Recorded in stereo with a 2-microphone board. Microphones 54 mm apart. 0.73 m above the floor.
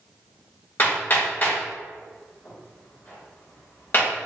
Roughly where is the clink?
No clink in this recording.